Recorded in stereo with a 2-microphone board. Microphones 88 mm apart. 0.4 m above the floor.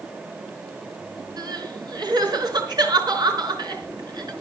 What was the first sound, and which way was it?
Crying, 55° right (ahead or behind).